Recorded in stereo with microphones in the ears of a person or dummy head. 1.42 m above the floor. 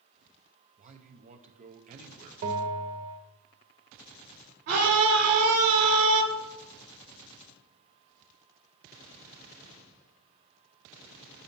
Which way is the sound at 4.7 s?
60° right (ahead or behind).